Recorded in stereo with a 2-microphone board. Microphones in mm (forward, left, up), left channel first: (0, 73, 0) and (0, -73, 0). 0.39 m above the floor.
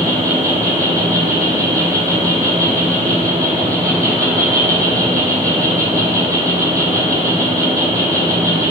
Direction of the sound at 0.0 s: 20° right (ahead or behind).